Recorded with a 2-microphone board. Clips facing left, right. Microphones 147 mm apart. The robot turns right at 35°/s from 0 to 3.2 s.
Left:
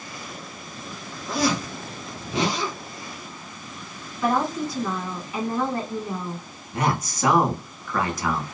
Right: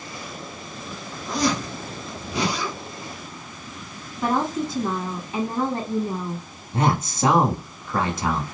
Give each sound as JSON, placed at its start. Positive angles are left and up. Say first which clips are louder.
{"t": 1.3, "sound": "a zipper", "louder": "even", "azimuth_deg": 5, "distance_m": 1.8}
{"t": 4.2, "sound": "a woman speaking", "louder": "even", "side_deg": -20, "distance_m": 1.6}
{"t": 6.7, "sound": "a man speaking", "louder": "right 2 dB", "side_deg": -25, "distance_m": 1.1}